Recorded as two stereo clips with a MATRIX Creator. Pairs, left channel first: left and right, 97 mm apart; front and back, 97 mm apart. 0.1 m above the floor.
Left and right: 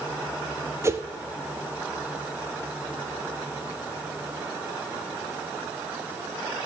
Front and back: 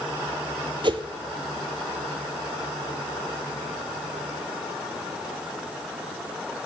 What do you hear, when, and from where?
0.8 s a whoosh: 150° right, 0.7 m